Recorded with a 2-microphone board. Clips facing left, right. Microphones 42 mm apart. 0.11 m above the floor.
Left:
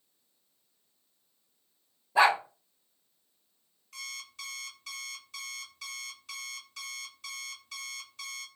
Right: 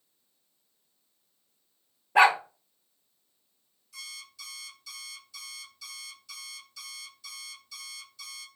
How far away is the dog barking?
About 0.7 m.